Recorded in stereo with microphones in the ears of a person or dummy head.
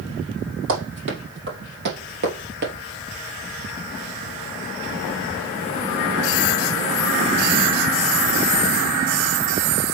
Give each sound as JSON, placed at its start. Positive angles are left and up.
{"t": 0.7, "sound": "running footsteps", "side_deg": -60, "distance_m": 3.5}